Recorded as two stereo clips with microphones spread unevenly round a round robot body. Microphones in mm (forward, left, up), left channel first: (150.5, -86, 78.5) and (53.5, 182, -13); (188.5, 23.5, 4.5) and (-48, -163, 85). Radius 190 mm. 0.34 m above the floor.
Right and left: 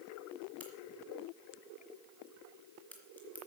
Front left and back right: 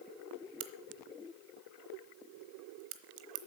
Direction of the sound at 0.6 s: 160° right.